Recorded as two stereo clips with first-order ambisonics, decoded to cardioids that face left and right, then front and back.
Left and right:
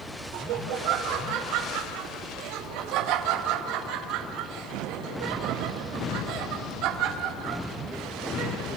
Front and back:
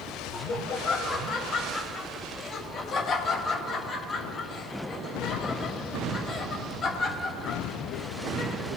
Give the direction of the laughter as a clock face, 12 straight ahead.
2 o'clock.